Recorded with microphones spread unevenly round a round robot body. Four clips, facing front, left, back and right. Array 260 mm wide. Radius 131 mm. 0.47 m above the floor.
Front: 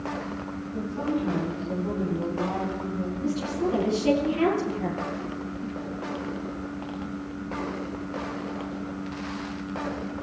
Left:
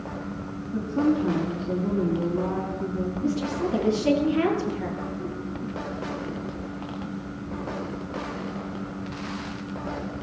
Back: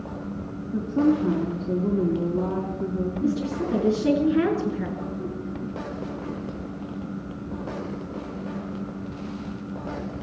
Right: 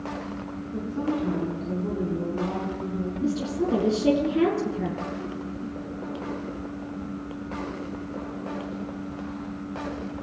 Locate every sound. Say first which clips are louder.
0.7 s a woman speaking: left 5 dB, back 8 dB; 170° left, 5 m
3.2 s a woman speaking: right 1 dB, even; 130° right, 5.5 m